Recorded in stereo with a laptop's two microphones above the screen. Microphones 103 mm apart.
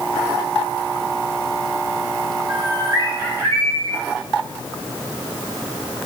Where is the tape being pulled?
I don't hear tape being pulled.